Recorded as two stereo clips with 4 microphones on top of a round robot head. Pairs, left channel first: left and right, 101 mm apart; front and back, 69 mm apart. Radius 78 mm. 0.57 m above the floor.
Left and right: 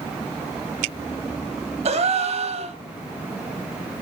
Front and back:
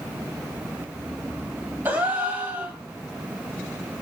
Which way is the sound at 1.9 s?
105° right.